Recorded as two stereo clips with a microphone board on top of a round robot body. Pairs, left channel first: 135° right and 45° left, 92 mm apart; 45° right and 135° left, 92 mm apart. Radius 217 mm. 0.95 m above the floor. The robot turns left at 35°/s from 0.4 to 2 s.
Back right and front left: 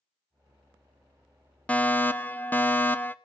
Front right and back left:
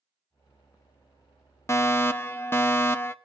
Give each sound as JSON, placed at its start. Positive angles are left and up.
{"t": 1.7, "sound": "a fire alarm", "azimuth_deg": -70, "distance_m": 1.3}